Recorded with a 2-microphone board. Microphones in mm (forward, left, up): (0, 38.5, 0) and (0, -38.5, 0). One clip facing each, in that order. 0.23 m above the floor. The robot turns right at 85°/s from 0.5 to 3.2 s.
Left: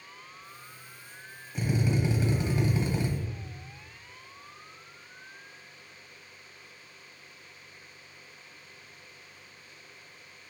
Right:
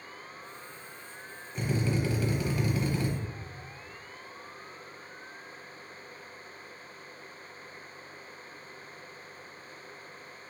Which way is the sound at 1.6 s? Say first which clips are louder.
Left 1 dB; 5° left (ahead or behind).